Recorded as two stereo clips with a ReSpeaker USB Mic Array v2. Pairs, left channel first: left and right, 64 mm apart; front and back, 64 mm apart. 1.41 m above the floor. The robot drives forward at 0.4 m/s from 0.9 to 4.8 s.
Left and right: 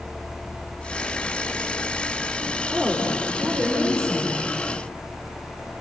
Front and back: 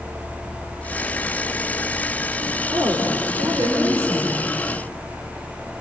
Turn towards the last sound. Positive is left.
turn(degrees=-175)